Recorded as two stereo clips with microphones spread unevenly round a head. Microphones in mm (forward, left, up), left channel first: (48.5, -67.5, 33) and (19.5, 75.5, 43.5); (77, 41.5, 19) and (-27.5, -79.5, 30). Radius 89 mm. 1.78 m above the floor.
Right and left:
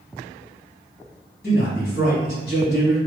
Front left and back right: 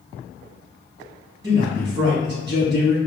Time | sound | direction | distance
1.4 | a man speaking | 115° right | 1.7 m